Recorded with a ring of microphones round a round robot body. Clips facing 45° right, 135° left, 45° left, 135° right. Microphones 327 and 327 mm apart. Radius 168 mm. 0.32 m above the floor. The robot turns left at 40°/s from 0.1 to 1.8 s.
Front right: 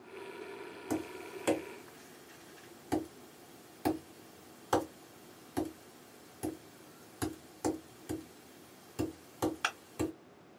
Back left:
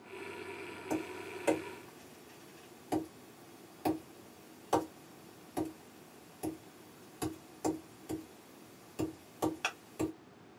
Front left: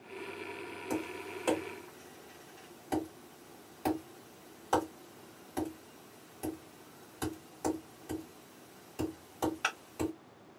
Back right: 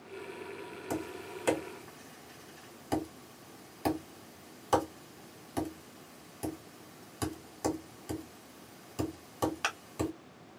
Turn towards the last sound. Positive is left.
turn(degrees=-110)